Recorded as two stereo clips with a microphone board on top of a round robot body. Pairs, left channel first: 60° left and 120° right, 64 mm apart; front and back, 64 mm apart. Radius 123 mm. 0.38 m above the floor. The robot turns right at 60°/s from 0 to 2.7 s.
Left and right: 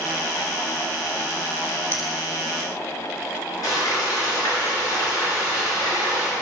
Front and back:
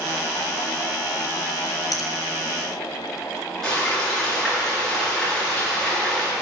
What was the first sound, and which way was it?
A finger snap, 5° left.